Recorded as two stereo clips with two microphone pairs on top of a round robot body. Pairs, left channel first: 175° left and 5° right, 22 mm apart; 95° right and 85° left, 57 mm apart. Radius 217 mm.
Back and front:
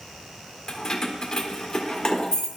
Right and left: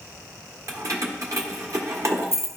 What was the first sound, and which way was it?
Keys jangling, 105° left.